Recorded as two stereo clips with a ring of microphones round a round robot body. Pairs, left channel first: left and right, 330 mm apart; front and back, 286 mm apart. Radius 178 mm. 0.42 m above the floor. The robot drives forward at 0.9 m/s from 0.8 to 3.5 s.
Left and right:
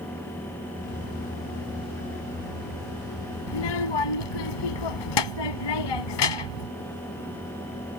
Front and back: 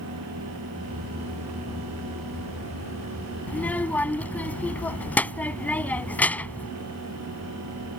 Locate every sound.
3.5 s a child speaking: 85° left